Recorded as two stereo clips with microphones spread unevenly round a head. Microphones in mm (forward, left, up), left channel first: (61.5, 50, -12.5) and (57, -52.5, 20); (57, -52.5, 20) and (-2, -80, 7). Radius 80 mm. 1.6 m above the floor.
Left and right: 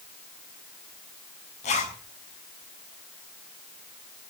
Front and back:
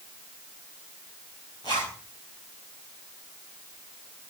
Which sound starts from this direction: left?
A zipper, at 1.6 s.